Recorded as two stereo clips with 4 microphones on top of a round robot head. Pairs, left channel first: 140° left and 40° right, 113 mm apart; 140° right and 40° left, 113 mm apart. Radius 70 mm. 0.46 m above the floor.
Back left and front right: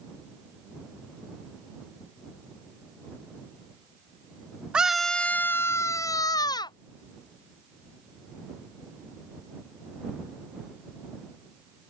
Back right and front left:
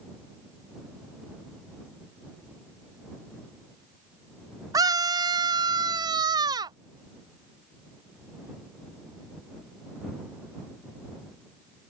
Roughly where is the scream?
Ahead left.